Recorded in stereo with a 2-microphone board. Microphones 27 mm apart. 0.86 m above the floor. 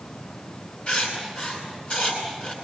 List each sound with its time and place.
0.9 s writing: 40° left (ahead or behind), 10 m